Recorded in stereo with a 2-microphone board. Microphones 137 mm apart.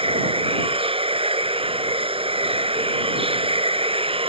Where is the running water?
45° right (ahead or behind).